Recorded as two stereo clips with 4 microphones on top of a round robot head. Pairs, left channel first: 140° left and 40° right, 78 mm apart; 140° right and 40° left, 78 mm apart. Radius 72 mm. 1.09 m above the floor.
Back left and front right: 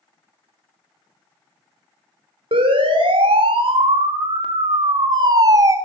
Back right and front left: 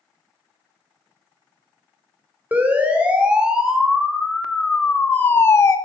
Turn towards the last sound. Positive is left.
turn(degrees=-90)